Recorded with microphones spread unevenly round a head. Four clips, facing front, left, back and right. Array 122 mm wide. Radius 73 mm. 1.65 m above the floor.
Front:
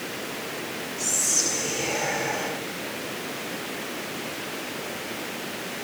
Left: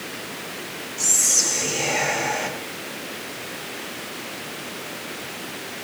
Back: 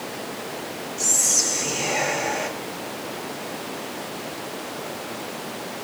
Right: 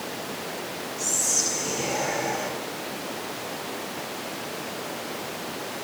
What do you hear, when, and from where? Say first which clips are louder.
1.0 s whispering: even, back 2 dB; 105° left, 3.5 m